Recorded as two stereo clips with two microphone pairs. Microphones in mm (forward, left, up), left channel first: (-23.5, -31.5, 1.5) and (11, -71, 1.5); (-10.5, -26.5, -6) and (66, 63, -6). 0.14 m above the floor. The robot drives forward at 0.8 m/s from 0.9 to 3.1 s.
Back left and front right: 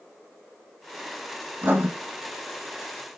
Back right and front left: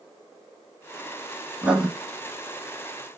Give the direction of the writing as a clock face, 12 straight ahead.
1 o'clock.